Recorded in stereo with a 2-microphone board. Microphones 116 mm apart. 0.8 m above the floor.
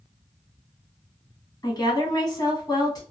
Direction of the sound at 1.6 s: 35° left (ahead or behind).